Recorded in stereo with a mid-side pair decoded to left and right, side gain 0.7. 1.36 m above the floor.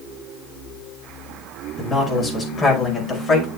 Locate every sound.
1.8 s a man speaking: 20° left, 5.5 m; by 3.5 s 30° left, 6 m